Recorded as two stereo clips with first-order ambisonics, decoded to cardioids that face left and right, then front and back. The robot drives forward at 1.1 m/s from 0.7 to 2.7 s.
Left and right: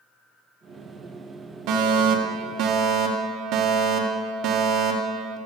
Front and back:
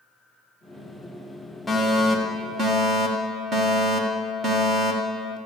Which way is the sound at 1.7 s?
80° right.